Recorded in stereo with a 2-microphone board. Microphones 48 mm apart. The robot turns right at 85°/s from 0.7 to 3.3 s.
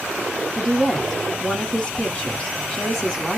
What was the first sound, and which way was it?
A woman speaking, 10° right (ahead or behind).